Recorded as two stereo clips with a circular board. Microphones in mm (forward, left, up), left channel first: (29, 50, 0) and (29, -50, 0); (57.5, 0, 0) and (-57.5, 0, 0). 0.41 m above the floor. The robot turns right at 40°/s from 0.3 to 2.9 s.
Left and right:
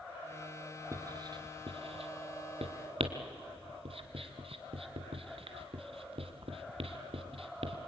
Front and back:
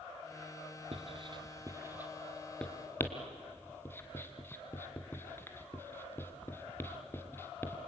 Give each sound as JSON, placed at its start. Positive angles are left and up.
{"t": 0.9, "sound": "writing", "azimuth_deg": -150, "distance_m": 1.8}